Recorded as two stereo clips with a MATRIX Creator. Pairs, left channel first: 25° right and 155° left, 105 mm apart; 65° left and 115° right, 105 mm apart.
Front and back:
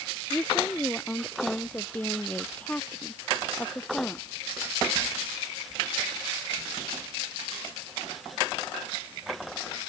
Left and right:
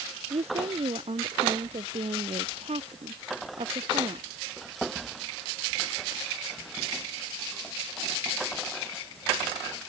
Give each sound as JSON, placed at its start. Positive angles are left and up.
{"t": 0.3, "sound": "a woman speaking", "azimuth_deg": -100}